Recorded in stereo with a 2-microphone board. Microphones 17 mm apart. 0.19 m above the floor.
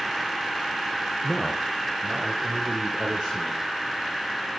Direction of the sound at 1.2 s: 25° right (ahead or behind).